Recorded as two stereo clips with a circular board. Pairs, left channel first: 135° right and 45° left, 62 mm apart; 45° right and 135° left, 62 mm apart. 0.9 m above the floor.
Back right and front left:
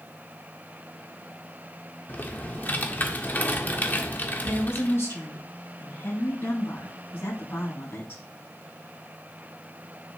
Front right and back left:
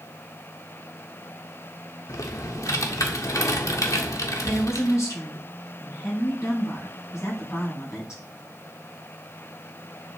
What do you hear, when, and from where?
2.1 s typing on a keyboard: 75° right, 1.2 m
4.4 s a woman speaking: 85° right, 6.5 m